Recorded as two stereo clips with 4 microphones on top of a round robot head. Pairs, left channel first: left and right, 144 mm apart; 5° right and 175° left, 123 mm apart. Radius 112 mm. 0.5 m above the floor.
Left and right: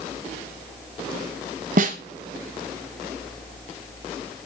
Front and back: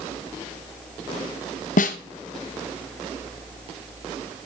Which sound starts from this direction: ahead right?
A snare drum, at 1.8 s.